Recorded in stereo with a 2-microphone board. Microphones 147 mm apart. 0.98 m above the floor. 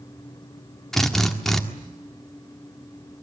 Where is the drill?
Centre (ahead or behind), 1.7 m.